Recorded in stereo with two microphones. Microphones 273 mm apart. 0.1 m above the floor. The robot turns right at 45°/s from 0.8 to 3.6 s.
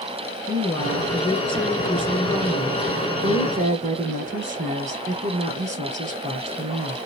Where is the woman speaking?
15° left (ahead or behind), 1.1 m; by 7.0 s 25° right (ahead or behind), 1.1 m.